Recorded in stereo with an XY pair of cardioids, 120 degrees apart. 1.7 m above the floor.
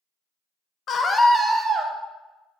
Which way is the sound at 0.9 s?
45° left.